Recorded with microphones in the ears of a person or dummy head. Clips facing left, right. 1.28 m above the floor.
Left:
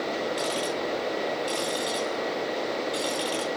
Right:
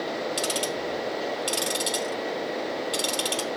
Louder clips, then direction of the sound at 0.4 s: Even; 30° right (ahead or behind).